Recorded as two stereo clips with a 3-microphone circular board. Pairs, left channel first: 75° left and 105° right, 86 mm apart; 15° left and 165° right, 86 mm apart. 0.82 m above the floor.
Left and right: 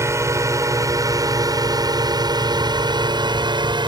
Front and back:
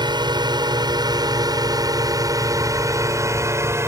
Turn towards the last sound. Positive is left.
turn(degrees=-110)